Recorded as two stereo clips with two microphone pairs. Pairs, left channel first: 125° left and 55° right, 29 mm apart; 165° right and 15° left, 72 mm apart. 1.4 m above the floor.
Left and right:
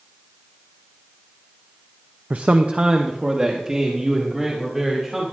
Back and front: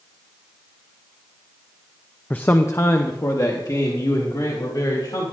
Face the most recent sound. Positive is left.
turn(degrees=-135)